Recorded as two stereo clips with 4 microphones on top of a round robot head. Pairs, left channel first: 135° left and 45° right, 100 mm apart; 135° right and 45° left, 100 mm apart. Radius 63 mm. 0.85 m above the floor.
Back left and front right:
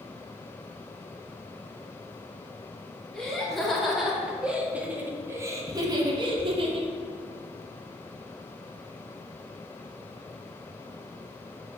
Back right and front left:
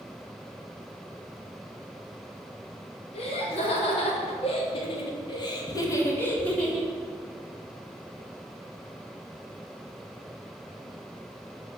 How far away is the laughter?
About 3 m.